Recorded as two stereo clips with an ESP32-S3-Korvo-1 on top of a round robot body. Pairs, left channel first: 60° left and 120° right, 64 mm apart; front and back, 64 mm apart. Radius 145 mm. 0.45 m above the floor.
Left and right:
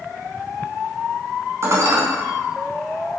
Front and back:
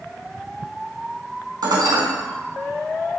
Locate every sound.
1.6 s dishes clattering: 165° right, 3.5 m